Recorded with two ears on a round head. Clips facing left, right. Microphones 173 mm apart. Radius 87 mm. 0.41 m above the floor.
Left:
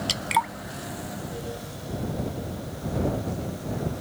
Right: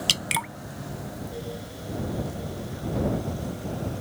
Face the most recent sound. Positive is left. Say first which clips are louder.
# left 5 dB
turn(degrees=-35)  # may be behind; listen again after turning